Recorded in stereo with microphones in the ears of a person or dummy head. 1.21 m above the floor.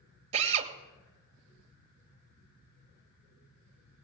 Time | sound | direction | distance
0.3 | a drill | 40° right (ahead or behind) | 2 m